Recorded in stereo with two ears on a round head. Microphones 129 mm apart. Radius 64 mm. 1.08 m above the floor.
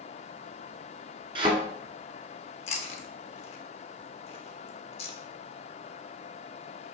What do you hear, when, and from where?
1.4 s a thud: 35° right (ahead or behind), 1.7 m
2.7 s chewing: 45° left (ahead or behind), 1.0 m